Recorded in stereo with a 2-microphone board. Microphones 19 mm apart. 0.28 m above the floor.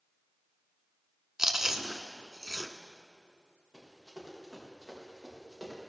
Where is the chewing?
25° right (ahead or behind), 1.1 m.